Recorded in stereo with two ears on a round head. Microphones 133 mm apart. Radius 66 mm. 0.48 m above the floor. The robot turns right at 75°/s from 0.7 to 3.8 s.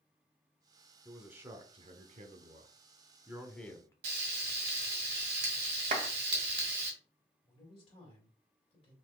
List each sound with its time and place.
1.1 s a man speaking: straight behind, 1.0 m; by 3.9 s 25° left, 1.0 m
4.0 s frying: 70° right (ahead or behind), 1.7 m
5.9 s a clap: 55° right (ahead or behind), 1.3 m
7.5 s a man speaking: 35° left (ahead or behind), 2.5 m